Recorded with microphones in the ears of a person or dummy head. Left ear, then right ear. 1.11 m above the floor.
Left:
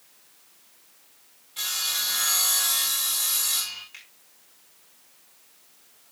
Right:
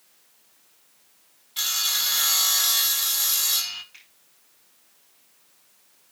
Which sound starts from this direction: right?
Sawing, at 1.6 s.